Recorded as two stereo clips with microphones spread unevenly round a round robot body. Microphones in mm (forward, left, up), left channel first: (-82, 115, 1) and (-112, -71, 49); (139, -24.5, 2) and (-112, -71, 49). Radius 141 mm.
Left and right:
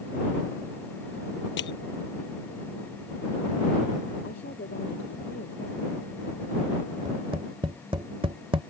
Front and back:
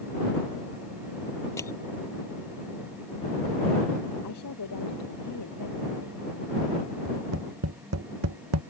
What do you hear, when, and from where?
1.6 s crushing: 90° left
4.2 s a woman speaking: 25° left
7.0 s tapping: 165° right